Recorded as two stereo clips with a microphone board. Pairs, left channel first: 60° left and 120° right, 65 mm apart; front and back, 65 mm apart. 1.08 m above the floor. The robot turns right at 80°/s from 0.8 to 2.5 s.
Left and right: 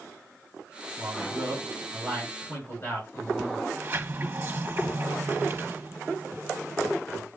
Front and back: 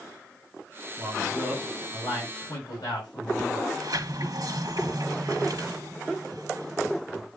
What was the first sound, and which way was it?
A man speaking, 120° right.